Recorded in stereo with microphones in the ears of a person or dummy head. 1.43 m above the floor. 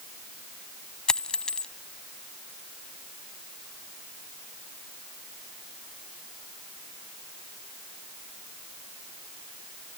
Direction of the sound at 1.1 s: 5° left (ahead or behind).